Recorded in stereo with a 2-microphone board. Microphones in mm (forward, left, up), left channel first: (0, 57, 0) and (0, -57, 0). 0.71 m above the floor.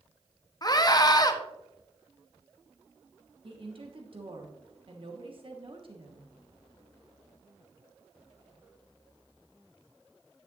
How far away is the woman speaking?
About 1.3 m.